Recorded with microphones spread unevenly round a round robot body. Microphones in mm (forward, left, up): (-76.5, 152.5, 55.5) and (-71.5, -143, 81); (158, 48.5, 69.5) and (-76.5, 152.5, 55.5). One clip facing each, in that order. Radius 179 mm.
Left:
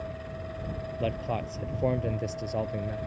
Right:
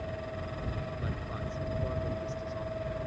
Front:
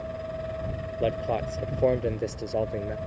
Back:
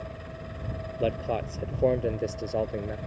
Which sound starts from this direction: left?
A man speaking, at 1.0 s.